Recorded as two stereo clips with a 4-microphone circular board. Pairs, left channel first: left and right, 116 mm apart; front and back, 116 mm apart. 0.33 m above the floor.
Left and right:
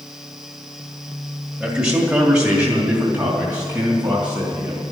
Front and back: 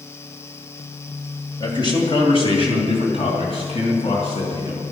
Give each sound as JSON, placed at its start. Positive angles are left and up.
{"t": 1.6, "sound": "a man speaking", "azimuth_deg": -10, "distance_m": 1.9}